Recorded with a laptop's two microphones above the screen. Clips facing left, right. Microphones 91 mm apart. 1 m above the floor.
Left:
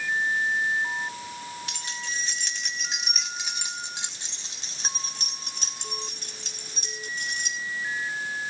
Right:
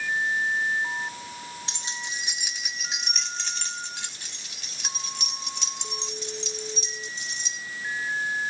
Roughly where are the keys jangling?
Right.